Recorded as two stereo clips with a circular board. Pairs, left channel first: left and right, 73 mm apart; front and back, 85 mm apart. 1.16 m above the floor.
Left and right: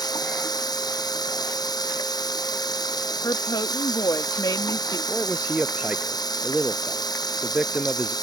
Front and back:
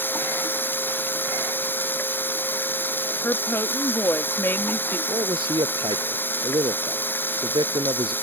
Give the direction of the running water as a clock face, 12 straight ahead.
10 o'clock.